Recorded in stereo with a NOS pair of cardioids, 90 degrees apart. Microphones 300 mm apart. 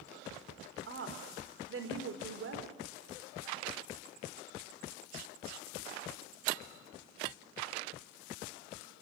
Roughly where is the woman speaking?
Ahead right.